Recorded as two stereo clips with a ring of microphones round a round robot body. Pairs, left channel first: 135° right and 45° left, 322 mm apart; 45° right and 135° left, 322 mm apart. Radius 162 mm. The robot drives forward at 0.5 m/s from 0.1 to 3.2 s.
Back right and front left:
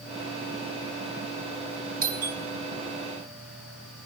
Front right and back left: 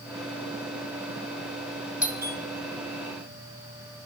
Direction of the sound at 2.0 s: 55° left.